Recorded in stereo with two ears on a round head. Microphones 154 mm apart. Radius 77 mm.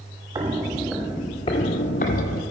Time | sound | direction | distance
0.3 | footsteps | 20° right (ahead or behind) | 0.9 m